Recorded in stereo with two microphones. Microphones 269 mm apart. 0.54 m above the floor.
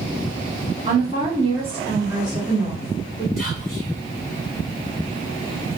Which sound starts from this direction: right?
A woman speaking, at 0.8 s.